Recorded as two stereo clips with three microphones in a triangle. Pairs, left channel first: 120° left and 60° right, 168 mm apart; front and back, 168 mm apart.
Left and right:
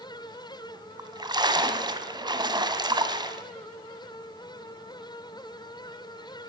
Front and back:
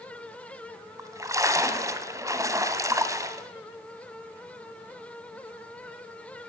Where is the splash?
115° right, 1.0 m.